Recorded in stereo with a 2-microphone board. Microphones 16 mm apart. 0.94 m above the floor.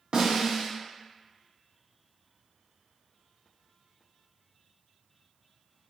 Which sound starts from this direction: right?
A snare drum, at 0.1 s.